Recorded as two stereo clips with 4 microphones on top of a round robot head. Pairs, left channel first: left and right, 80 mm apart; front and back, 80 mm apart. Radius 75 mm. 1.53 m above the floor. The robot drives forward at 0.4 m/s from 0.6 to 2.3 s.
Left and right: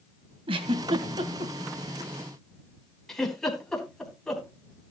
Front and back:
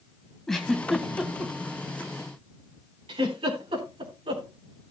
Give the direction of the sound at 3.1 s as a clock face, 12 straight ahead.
6 o'clock.